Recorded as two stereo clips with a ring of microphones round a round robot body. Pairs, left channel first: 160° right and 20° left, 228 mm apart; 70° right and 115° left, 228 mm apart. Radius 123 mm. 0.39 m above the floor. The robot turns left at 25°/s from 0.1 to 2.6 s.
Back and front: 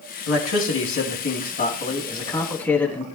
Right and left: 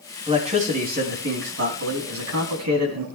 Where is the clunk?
No clunk in this recording.